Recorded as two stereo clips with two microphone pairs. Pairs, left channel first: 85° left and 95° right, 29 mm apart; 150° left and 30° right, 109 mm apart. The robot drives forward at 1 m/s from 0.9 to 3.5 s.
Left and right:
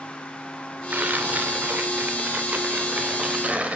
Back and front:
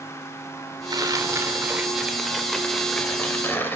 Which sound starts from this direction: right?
Tearing paper, at 0.9 s.